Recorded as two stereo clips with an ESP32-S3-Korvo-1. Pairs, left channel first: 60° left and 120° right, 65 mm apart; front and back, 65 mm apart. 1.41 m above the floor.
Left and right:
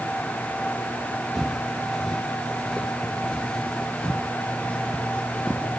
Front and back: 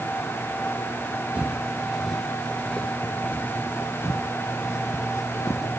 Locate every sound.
1.4 s footsteps: 150° left, 1.4 m; by 5.7 s 10° right, 2.5 m